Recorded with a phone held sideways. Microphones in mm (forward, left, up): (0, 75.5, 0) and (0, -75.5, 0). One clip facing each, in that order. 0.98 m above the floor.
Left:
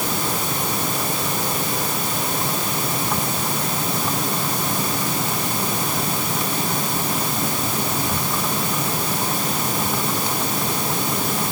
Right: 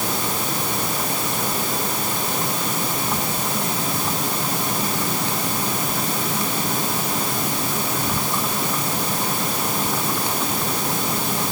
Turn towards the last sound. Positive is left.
No sound to turn to.